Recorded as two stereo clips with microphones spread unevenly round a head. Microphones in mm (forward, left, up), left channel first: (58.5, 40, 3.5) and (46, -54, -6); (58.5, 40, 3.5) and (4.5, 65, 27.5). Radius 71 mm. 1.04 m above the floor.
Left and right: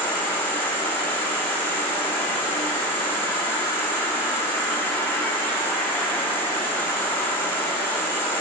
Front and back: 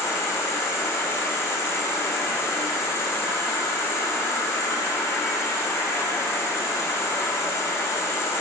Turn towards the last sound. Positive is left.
turn(degrees=15)